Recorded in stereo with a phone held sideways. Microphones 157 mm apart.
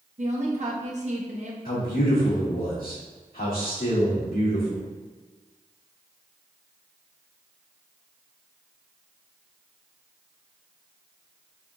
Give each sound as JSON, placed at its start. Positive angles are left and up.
{"t": 0.2, "sound": "a woman speaking", "side_deg": -50, "distance_m": 1.0}
{"t": 1.6, "sound": "a man speaking", "side_deg": 85, "distance_m": 1.9}